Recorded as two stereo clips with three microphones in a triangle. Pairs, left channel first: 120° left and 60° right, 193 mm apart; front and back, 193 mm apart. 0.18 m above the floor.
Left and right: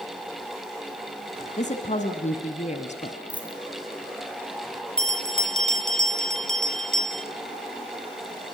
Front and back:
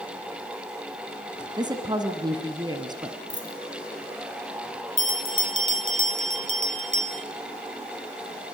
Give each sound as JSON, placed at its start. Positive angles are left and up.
{"t": 1.6, "sound": "a woman speaking", "azimuth_deg": 125, "distance_m": 1.8}
{"t": 3.3, "sound": "a dropped coin", "azimuth_deg": 25, "distance_m": 3.0}
{"t": 5.0, "sound": "a bell", "azimuth_deg": -155, "distance_m": 1.7}